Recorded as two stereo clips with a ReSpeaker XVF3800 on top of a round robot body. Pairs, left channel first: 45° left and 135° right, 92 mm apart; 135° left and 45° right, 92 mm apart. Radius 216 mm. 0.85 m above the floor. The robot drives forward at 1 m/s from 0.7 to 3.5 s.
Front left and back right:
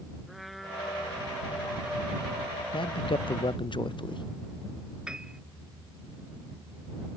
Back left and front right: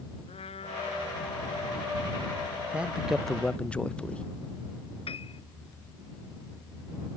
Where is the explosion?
No explosion in this recording.